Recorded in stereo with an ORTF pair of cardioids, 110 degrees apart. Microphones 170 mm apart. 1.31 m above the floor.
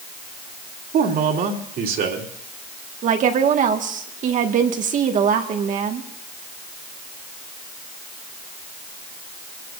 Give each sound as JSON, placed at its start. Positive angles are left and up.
{"t": 0.9, "sound": "a man speaking", "azimuth_deg": -60, "distance_m": 3.0}
{"t": 3.0, "sound": "a woman speaking", "azimuth_deg": -50, "distance_m": 1.7}